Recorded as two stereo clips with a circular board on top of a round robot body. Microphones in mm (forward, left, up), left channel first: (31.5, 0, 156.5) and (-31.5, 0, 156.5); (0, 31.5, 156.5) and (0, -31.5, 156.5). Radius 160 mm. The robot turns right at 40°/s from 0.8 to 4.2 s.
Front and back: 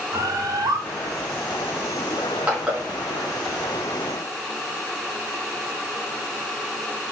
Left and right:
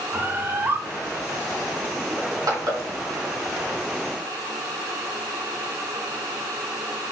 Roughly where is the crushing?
Behind right.